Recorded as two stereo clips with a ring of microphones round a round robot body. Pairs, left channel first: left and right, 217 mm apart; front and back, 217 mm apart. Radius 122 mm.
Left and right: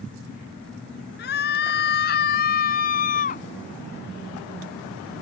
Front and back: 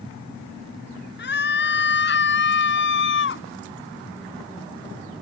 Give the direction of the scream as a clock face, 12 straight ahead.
11 o'clock.